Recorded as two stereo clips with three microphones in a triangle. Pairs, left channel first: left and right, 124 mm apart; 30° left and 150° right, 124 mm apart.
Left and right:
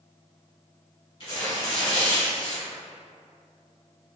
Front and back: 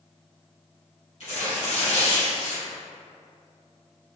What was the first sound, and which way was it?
Tearing paper, 50° left.